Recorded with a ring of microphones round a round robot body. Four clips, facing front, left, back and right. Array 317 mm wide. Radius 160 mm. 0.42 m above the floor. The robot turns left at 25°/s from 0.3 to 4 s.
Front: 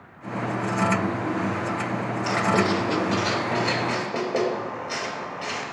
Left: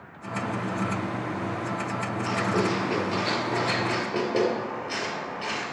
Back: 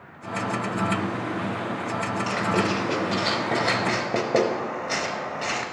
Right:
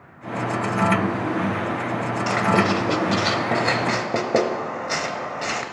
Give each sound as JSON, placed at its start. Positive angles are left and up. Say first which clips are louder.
{"t": 2.3, "sound": "writing", "louder": "right 6 dB, front 4 dB", "azimuth_deg": -70, "distance_m": 0.8}